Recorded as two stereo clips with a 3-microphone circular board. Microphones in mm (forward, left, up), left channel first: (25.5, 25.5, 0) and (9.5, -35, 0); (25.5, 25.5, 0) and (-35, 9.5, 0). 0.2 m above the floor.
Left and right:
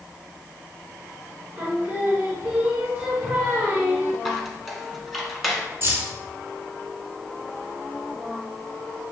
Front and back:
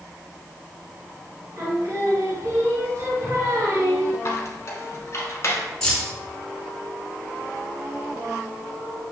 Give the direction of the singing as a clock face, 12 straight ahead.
5 o'clock.